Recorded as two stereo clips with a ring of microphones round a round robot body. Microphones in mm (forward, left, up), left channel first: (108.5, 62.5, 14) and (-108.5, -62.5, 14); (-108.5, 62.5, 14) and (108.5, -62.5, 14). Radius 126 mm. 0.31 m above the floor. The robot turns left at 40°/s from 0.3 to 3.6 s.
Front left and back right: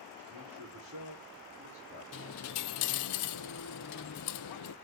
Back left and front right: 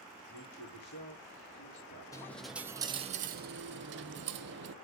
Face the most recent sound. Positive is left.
turn(degrees=15)